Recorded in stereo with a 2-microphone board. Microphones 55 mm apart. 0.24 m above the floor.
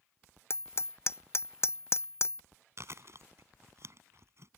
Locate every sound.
0.5 s hammering: 50° left (ahead or behind)
2.8 s chewing: 55° right (ahead or behind)